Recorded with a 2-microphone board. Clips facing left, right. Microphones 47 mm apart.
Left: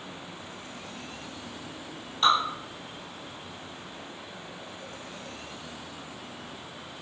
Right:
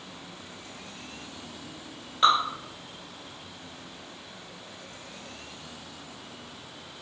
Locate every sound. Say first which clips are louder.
2.2 s dripping: right 2 dB; 25° right (ahead or behind), 1.7 m